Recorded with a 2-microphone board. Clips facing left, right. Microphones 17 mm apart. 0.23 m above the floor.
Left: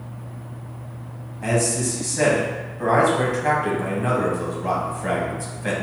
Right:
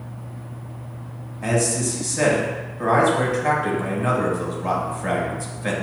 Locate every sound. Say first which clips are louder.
1.4 s a man speaking: even; centre (ahead or behind), 1.1 m